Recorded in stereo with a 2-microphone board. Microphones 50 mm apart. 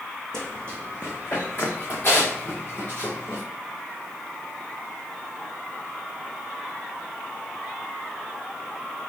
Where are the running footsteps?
10° left (ahead or behind), 1.0 m; by 3.4 s 50° left (ahead or behind), 2.5 m.